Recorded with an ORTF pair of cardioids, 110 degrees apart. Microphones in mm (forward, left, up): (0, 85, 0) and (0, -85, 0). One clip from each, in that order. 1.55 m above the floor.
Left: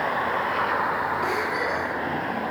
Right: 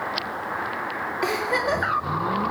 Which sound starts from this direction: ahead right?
A giggle, at 1.2 s.